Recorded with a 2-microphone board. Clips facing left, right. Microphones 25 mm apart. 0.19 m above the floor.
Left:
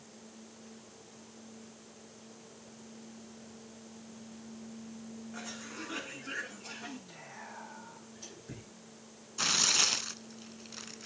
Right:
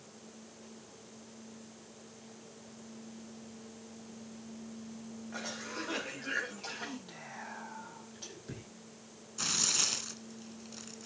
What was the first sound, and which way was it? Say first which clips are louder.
A cough: right 5 dB; 65° right (ahead or behind).